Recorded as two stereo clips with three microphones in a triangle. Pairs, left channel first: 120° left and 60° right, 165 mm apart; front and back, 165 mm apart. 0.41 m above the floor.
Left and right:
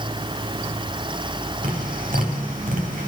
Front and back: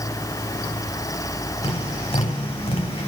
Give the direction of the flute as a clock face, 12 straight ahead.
No flute in this recording.